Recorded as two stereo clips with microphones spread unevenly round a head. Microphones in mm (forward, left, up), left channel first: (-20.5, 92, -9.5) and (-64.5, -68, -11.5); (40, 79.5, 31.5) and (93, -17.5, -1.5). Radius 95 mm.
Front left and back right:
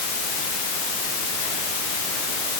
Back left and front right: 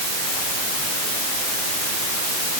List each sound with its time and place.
Only background noise.